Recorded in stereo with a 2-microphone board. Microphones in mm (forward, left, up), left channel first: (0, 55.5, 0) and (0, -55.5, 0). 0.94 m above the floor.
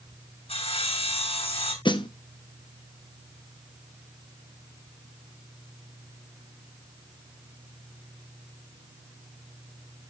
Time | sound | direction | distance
0.5 | sawing | 65° left (ahead or behind) | 6.5 m
1.9 | a snare drum | 45° left (ahead or behind) | 1.0 m